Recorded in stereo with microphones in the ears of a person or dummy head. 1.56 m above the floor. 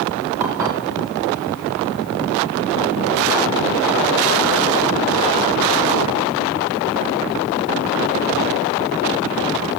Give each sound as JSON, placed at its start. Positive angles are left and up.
{"t": 0.4, "sound": "dishes clattering", "side_deg": -15, "distance_m": 2.5}